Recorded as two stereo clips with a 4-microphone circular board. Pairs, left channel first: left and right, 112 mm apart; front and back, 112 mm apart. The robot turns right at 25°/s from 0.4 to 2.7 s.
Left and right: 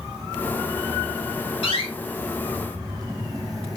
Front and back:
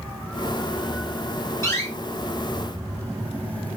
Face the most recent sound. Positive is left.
turn(degrees=90)